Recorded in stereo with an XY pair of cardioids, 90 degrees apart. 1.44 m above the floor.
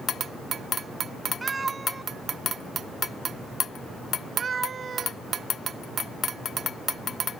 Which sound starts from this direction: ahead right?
A cat meowing, at 1.4 s.